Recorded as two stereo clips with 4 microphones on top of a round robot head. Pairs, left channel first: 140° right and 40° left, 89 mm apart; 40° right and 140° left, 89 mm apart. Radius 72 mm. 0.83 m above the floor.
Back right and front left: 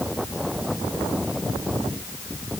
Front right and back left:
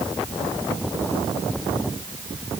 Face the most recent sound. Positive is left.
No sound to turn to.